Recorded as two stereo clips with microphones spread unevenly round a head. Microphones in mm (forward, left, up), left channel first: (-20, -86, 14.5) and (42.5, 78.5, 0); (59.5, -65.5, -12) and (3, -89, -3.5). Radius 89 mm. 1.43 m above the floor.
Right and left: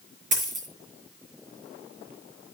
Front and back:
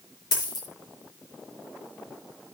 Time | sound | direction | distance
0.3 | a dropped coin | 20° left | 5 m